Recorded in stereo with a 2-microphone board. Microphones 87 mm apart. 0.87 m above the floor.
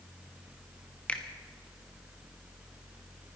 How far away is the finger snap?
About 1.3 m.